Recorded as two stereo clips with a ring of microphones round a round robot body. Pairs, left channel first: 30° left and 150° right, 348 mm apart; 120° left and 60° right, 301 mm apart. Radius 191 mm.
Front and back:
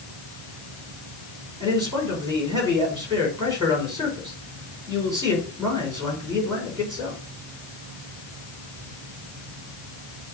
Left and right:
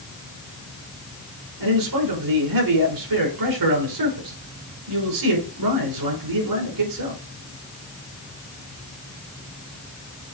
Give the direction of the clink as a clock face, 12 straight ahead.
I don't hear a clink.